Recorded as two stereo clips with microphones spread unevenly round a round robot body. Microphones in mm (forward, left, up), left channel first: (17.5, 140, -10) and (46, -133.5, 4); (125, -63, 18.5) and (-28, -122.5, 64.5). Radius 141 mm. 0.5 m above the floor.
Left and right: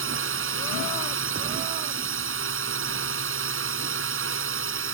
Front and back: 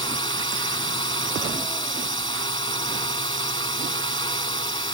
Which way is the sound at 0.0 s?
40° right.